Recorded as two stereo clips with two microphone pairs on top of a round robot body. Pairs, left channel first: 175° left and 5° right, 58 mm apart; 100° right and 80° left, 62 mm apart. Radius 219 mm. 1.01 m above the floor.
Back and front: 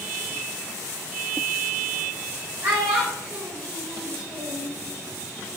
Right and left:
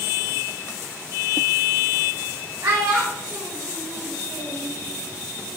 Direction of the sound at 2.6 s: 40° left.